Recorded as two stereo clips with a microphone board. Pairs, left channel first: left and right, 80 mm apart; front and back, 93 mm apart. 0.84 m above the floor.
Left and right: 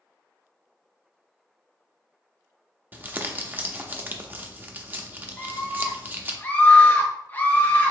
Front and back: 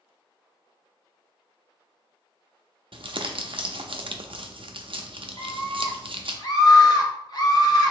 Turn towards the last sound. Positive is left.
turn(degrees=30)